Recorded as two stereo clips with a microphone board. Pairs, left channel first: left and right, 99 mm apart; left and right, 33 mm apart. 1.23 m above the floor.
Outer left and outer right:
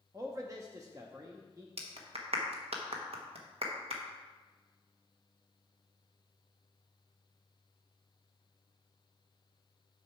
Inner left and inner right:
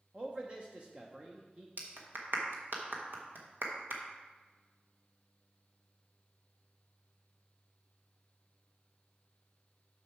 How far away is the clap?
About 1.2 m.